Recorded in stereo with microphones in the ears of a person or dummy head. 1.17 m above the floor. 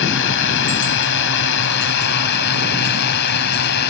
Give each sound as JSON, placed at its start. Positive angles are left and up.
{"t": 0.0, "sound": "a drone", "side_deg": 65}